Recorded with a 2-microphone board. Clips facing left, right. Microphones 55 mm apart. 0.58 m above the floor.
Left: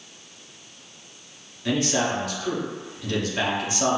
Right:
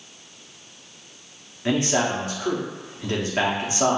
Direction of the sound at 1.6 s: 30° right (ahead or behind).